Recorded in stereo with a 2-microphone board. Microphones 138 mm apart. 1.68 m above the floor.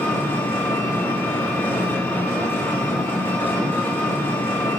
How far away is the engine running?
About 2.5 m.